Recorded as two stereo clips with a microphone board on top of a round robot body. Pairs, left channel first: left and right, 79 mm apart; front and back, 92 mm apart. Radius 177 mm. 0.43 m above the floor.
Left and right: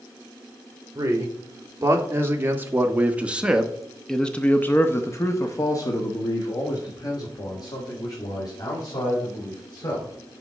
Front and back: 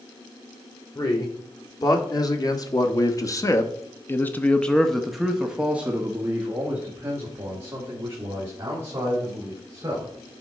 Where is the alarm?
I don't hear an alarm.